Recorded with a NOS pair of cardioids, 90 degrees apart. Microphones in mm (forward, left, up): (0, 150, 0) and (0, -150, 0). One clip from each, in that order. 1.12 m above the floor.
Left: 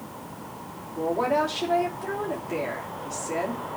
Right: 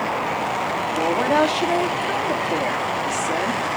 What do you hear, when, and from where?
0.9 s a woman speaking: 50° right, 2.5 m